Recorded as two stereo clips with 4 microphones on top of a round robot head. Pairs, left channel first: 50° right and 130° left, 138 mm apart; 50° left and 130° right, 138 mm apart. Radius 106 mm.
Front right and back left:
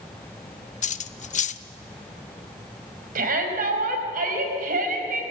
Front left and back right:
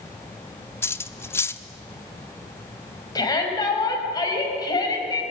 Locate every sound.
0.8 s cutlery clinking: 20° right, 0.7 m
3.1 s a shout: 110° left, 4.5 m